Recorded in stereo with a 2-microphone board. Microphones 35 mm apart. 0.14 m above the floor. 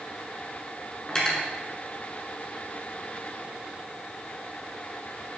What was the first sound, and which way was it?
Cutlery clinking, 20° left (ahead or behind).